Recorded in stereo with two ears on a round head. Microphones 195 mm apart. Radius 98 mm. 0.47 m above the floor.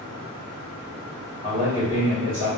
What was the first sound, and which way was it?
A man speaking, 15° right (ahead or behind).